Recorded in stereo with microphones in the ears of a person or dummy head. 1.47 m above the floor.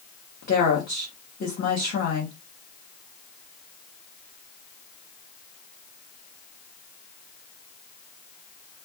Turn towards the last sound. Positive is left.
turn(degrees=45)  # may be behind; listen again after turning